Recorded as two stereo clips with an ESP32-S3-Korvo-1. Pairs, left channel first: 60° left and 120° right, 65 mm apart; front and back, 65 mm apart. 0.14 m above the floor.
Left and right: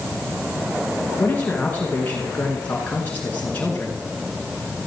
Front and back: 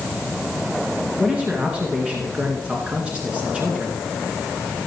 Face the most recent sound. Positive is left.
turn(degrees=115)